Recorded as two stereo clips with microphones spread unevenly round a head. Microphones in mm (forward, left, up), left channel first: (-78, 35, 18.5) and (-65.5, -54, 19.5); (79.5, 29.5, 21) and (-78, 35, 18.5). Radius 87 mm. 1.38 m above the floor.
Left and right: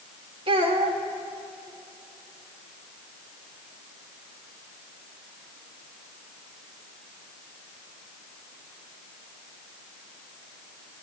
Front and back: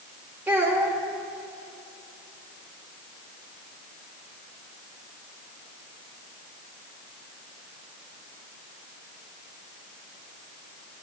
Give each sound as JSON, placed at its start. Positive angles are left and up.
{"t": 0.5, "sound": "a child speaking", "azimuth_deg": -100, "distance_m": 1.3}